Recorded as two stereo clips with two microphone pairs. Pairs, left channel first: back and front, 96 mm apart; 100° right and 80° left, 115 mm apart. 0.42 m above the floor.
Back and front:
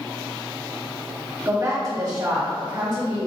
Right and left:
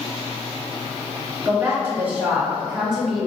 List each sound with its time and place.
1.4 s a woman speaking: 30° left, 1.4 m; by 3.3 s 5° right, 1.9 m